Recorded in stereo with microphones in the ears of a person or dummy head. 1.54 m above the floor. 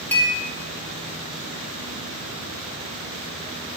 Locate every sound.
0.1 s a clink: 10° left (ahead or behind), 0.8 m